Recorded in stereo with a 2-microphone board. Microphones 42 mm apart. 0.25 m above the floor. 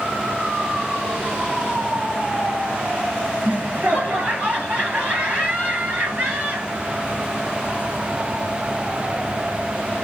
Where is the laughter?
45° right (ahead or behind), 2.5 m.